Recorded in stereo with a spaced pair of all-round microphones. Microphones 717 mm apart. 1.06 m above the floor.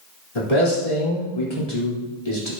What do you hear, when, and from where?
0.3 s a man speaking: 55° left (ahead or behind), 3 m